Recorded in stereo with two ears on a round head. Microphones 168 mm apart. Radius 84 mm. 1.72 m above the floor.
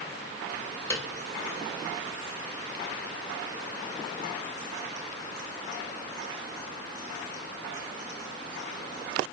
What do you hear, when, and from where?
0.9 s a piano: 15° left (ahead or behind), 2.5 m